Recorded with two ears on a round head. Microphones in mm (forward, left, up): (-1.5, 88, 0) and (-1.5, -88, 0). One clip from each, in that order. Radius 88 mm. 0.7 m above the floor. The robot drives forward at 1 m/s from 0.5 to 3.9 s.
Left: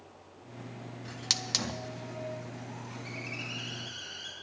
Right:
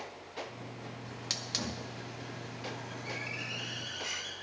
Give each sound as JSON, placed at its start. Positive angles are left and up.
{"t": 1.1, "sound": "a hiss", "side_deg": 25, "distance_m": 0.5}